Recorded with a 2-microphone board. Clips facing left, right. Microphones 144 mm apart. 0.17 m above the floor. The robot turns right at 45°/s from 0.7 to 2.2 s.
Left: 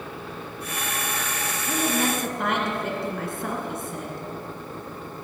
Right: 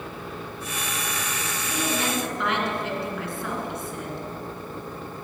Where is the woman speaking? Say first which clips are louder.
Left 3 dB; 40° left (ahead or behind), 2 m; by 4.2 s 50° left (ahead or behind), 2 m.